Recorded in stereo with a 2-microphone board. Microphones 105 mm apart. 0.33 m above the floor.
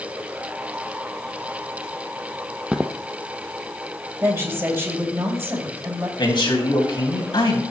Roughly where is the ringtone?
I don't hear a ringtone.